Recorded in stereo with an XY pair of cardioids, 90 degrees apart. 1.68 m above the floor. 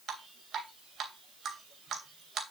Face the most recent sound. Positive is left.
turn(degrees=-70)